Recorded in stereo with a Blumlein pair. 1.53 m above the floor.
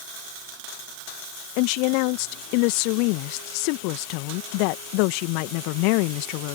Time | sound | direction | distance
1.6 | a woman speaking | 45° left | ?